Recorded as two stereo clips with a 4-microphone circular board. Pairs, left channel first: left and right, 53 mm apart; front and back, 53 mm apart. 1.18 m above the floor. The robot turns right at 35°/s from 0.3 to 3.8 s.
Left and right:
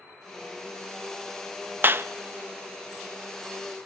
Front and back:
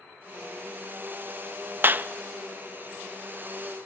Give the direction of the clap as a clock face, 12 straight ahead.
5 o'clock.